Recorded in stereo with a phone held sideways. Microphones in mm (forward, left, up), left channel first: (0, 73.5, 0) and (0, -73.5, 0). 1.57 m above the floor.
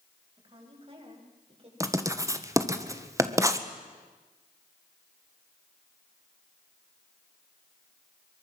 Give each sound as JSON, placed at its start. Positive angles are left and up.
{"t": 0.4, "sound": "a woman speaking", "side_deg": -40, "distance_m": 8.5}
{"t": 1.8, "sound": "writing", "side_deg": -20, "distance_m": 1.6}